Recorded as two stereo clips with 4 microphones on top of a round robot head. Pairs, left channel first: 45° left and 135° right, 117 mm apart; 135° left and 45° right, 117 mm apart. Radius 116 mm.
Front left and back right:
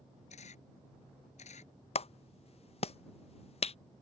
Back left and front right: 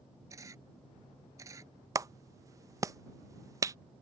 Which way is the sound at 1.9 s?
15° left.